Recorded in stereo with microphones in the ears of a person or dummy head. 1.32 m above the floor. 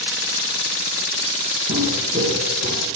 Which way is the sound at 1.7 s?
35° right (ahead or behind).